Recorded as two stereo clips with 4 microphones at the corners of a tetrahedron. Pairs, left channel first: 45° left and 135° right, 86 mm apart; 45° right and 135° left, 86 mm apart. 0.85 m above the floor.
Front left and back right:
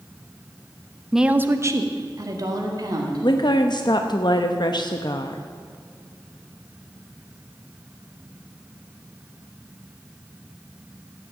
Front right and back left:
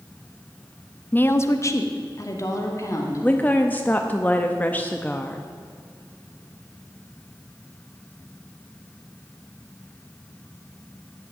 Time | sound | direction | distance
1.1 | a woman speaking | 50° right | 0.6 m
3.2 | a woman speaking | 20° left | 0.7 m